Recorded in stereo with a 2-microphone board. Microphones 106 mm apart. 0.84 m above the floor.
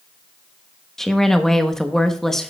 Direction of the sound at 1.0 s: 5° left (ahead or behind).